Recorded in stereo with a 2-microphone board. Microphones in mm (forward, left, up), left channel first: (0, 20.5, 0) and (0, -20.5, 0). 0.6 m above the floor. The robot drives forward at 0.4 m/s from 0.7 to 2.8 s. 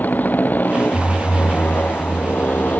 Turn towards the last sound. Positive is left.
turn(degrees=45)  # may be behind; listen again after turning